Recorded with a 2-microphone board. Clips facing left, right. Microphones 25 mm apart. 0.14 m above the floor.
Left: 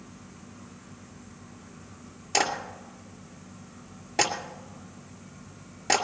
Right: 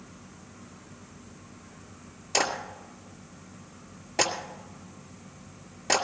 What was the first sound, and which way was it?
A clap, 5° left (ahead or behind).